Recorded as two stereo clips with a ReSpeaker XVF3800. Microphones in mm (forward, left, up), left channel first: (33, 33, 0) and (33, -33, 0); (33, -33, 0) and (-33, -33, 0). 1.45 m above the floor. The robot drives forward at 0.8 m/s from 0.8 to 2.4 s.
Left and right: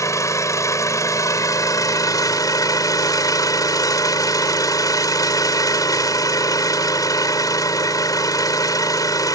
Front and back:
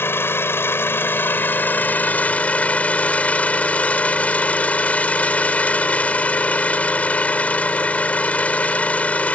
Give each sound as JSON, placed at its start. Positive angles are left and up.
{"t": 0.0, "sound": "an engine running", "azimuth_deg": 55}